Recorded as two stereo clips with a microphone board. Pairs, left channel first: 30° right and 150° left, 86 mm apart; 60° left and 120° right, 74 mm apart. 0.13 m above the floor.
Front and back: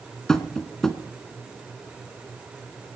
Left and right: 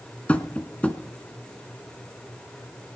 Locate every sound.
0.3 s tapping: 40° left, 1.0 m